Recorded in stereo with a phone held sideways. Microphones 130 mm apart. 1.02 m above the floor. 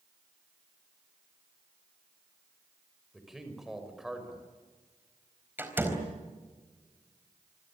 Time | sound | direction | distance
3.1 | a man speaking | 5° right (ahead or behind) | 6 m
5.6 | a door slam | 15° right (ahead or behind) | 4 m